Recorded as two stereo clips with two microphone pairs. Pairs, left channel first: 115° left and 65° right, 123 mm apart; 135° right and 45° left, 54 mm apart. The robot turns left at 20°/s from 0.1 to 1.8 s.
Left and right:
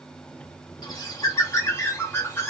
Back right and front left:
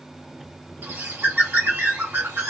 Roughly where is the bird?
Left.